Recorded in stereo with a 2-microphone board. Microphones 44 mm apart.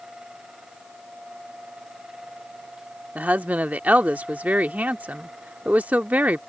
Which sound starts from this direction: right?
A woman speaking, at 3.1 s.